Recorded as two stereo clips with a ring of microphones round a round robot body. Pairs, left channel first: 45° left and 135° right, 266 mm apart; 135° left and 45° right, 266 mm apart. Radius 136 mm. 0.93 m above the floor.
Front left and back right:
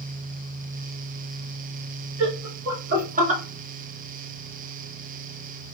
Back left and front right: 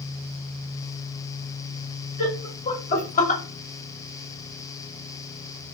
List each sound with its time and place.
2.2 s laughter: 170° right, 1.8 m; by 3.4 s 170° left, 0.9 m